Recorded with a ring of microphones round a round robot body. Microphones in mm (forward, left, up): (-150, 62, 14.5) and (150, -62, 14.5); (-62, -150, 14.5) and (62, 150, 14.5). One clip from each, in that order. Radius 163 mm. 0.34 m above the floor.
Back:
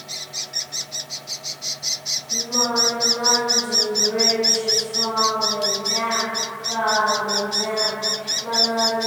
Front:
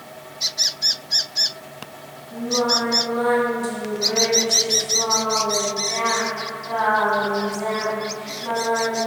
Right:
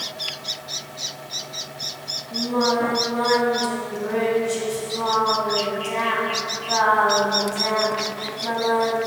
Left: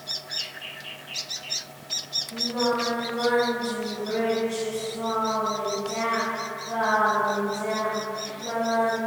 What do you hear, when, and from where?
2.3 s singing: 100° right, 3.5 m